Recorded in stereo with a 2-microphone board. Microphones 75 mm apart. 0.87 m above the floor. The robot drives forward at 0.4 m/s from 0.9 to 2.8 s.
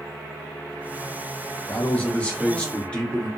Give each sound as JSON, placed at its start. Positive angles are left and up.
{"t": 1.7, "sound": "a man speaking", "side_deg": 20, "distance_m": 0.8}